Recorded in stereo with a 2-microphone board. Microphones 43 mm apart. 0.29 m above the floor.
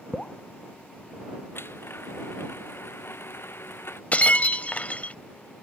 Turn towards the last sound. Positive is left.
turn(degrees=35)  # may be behind; listen again after turning